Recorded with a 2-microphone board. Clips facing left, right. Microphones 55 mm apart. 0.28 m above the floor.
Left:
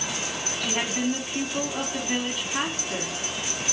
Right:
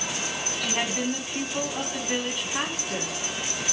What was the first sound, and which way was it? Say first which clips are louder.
A woman speaking: left 1 dB; centre (ahead or behind).